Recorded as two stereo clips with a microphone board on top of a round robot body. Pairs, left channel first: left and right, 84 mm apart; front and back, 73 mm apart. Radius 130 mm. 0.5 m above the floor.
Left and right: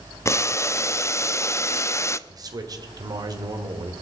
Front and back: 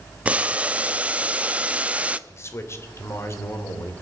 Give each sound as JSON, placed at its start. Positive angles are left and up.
{"t": 0.2, "sound": "boiling", "azimuth_deg": 120, "distance_m": 0.7}
{"t": 2.3, "sound": "a man speaking", "azimuth_deg": -50, "distance_m": 2.5}